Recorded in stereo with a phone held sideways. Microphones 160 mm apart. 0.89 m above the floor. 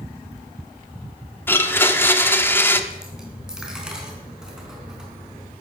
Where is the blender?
15° left (ahead or behind), 1.0 m.